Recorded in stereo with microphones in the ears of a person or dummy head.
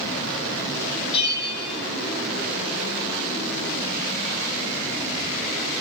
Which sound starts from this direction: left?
A bell, at 1.1 s.